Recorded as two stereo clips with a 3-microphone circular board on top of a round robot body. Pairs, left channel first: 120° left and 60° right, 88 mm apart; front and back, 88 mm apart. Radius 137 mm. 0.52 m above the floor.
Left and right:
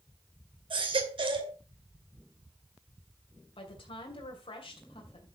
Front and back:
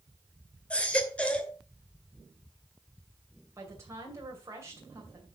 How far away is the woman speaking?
About 2.5 m.